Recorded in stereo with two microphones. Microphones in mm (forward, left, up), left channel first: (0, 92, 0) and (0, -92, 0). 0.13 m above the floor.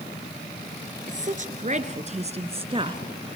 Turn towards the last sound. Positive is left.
turn(degrees=-25)  # may be behind; listen again after turning